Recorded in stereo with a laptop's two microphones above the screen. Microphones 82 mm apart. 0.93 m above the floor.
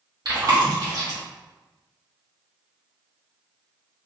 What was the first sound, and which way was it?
Chewing, 55° right (ahead or behind).